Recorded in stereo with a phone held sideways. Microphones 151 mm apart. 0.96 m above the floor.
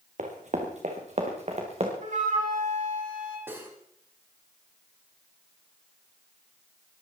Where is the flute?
60° right (ahead or behind), 5 m.